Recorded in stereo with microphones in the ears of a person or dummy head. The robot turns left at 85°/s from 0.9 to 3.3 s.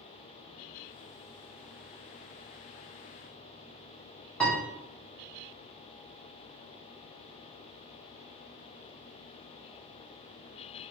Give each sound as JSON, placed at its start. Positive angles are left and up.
{"t": 4.4, "sound": "a piano", "side_deg": 5, "distance_m": 0.8}